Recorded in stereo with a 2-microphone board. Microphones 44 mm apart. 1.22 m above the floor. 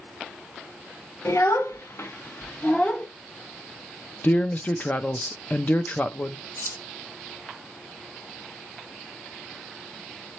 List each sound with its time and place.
1.2 s a child speaking: 80° left, 1.1 m; by 3.1 s 30° left (ahead or behind), 1.2 m
4.2 s a man speaking: 35° left (ahead or behind), 0.6 m
6.6 s keys jangling: 85° left, 3 m